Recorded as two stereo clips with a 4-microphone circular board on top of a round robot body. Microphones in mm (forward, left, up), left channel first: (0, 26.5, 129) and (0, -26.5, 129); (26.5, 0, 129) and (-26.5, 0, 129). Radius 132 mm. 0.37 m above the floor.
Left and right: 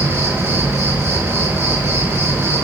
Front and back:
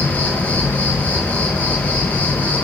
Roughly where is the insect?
Ahead right.